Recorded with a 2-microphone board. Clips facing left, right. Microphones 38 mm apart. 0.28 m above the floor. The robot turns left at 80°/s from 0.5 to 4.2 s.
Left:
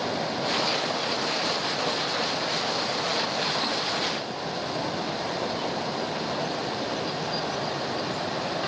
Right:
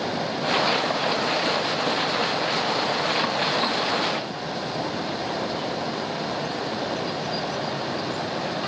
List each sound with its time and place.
Only background noise.